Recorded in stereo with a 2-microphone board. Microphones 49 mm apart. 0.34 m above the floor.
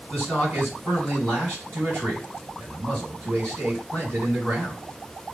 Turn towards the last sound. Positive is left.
turn(degrees=-45)  # may be behind; listen again after turning